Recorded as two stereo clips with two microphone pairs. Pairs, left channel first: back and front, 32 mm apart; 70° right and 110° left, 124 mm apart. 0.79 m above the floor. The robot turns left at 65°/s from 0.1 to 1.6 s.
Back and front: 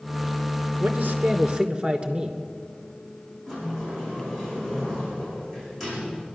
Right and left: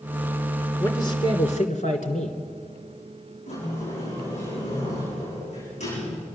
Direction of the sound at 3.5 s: 100° right.